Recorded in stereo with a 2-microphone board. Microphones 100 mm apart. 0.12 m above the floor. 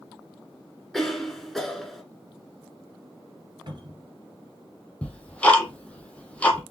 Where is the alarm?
No alarm in this recording.